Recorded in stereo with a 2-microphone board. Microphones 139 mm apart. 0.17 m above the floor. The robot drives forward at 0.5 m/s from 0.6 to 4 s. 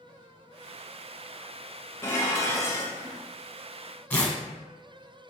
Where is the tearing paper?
10° left (ahead or behind), 0.8 m.